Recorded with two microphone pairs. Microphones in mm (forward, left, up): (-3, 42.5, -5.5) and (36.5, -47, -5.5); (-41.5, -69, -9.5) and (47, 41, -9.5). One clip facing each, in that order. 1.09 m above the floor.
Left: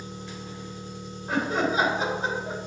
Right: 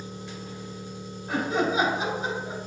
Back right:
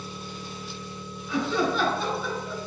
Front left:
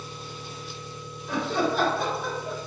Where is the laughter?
65° left, 4 m.